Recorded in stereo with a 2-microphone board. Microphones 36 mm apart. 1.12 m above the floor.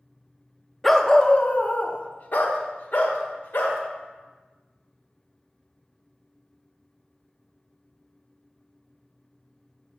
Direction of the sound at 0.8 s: 5° left (ahead or behind).